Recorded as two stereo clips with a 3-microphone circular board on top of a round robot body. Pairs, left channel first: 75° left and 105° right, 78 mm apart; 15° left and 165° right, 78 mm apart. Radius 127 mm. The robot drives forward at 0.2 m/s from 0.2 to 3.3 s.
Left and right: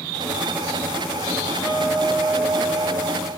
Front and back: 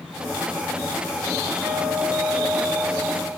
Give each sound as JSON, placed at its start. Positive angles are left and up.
{"t": 1.6, "sound": "a guitar", "azimuth_deg": 120, "distance_m": 1.4}